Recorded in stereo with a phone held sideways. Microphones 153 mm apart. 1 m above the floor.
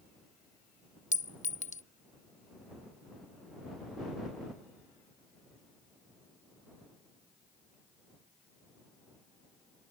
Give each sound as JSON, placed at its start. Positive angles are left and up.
{"t": 1.1, "sound": "a clink", "side_deg": 50}